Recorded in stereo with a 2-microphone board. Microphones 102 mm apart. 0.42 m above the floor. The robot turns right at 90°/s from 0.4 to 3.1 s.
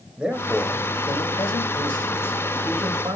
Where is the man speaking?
10° right, 1.4 m; by 3.2 s 130° right, 1.4 m.